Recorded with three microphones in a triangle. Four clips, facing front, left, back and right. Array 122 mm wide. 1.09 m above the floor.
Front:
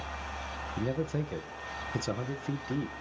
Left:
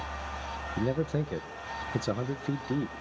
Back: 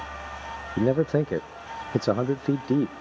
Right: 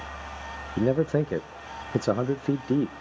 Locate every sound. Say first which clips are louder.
0.8 s a man speaking: right 7 dB, back 11 dB; 145° right, 0.5 m